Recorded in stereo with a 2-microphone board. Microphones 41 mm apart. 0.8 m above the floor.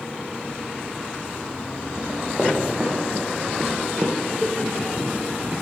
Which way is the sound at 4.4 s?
35° left (ahead or behind).